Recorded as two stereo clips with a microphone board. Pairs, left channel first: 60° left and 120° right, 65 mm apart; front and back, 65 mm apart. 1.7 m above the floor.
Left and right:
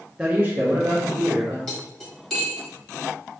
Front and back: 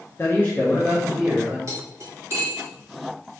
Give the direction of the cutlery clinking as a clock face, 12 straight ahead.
7 o'clock.